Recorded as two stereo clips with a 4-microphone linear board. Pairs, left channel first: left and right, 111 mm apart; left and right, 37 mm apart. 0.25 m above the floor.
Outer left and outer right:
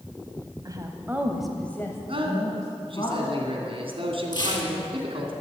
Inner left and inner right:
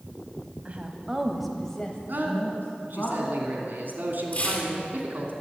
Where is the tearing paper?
40° left (ahead or behind), 2.5 m.